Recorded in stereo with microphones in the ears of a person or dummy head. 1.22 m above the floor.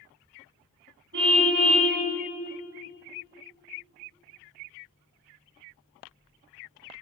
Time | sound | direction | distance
1.1 | a car horn | 70° right (ahead or behind) | 4.5 m